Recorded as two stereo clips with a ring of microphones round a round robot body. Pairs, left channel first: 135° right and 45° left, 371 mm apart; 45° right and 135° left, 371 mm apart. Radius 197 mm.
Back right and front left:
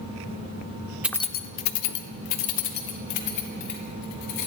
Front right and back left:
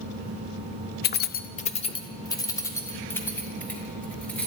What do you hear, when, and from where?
1.0 s keys jangling: 35° right, 0.6 m; by 4.5 s 130° right, 3 m